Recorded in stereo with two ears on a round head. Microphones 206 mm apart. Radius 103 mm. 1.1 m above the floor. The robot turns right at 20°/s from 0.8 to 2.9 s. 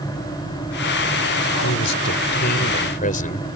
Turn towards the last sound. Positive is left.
turn(degrees=40)  # may be behind; listen again after turning